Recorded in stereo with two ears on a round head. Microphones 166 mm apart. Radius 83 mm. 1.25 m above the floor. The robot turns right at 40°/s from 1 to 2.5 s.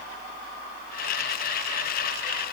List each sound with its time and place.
Only background noise.